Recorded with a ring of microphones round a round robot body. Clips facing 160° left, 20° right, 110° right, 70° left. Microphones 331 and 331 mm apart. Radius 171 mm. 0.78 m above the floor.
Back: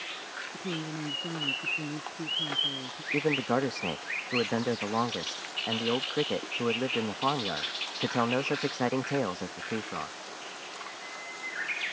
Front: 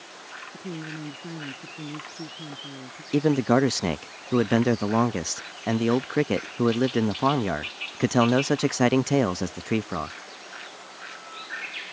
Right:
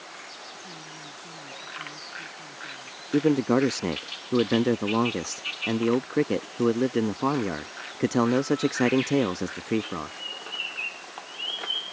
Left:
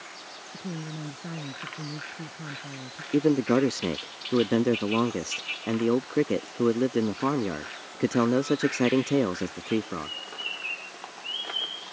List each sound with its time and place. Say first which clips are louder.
0.5 s a woman speaking: even, left 13 dB; 65° left
3.1 s a man speaking: front 8 dB, even; 25° right